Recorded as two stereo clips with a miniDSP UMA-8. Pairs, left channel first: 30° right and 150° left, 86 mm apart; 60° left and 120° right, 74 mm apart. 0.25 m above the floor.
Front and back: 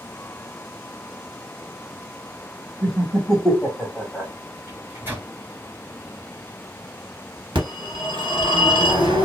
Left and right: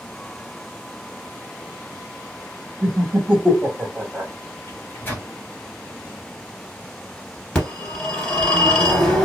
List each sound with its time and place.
2.8 s laughter: 125° right, 1.1 m
4.7 s a microwave: 105° left, 1.5 m
7.5 s a phone ringing: 140° left, 1.4 m